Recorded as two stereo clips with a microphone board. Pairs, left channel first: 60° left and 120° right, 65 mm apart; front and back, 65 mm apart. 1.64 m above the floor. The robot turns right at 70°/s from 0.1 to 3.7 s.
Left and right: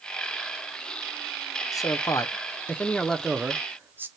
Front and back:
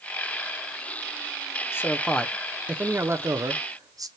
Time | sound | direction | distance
1.7 | a man speaking | 45° left | 0.7 m